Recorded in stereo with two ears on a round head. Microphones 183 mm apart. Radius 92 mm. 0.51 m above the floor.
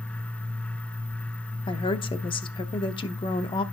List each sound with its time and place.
1.7 s a woman speaking: 25° left (ahead or behind), 0.8 m